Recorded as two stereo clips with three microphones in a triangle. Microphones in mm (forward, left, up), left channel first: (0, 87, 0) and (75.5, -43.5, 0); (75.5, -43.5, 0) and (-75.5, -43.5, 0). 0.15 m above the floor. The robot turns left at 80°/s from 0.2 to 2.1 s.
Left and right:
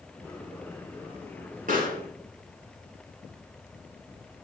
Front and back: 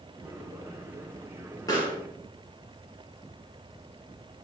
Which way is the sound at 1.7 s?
65° right.